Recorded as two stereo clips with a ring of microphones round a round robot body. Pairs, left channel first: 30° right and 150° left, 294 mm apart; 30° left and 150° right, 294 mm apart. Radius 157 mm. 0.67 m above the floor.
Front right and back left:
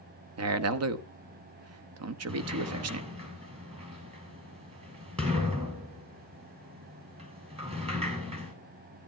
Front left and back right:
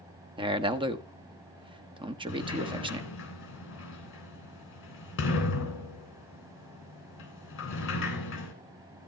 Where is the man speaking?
140° left, 1.0 m.